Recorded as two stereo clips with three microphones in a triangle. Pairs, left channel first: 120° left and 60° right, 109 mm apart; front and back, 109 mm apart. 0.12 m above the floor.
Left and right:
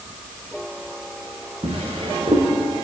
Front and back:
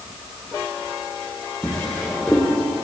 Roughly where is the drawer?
Right.